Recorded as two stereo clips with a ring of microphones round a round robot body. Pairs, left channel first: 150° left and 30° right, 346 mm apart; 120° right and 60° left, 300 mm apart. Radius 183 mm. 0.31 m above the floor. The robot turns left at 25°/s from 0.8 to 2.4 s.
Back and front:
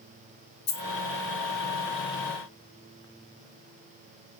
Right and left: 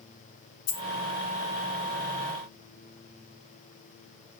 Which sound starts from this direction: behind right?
A dropped coin, at 0.7 s.